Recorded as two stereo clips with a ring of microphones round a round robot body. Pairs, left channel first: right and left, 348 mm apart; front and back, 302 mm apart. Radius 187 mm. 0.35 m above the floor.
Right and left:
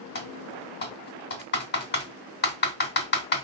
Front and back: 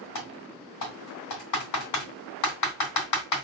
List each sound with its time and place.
0.1 s typing on a keyboard: 30° right, 2.5 m